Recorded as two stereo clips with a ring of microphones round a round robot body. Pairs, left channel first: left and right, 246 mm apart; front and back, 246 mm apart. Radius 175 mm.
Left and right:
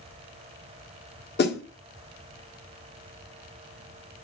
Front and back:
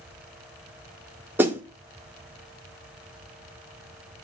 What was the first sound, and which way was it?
A snare drum, 100° left.